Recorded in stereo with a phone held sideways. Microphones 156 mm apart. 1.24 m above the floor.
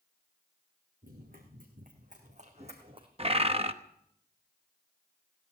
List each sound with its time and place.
1.0 s running footsteps: 70° right (ahead or behind), 4.5 m; by 3.1 s 30° right (ahead or behind), 2.5 m
3.2 s a bird: 40° right (ahead or behind), 0.9 m